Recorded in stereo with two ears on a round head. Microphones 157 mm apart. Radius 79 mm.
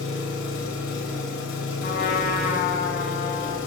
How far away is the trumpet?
About 1.8 m.